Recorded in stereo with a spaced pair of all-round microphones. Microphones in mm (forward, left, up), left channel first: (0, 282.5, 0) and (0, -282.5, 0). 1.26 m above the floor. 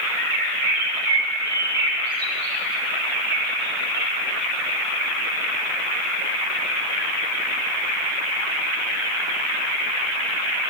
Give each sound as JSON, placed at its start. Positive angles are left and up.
{"t": 0.2, "sound": "a bird", "side_deg": -40, "distance_m": 7.0}